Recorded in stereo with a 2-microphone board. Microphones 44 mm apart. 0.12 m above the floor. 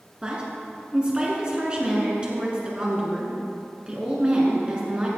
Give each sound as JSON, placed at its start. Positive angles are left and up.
{"t": 0.2, "sound": "a woman speaking", "side_deg": -25, "distance_m": 1.7}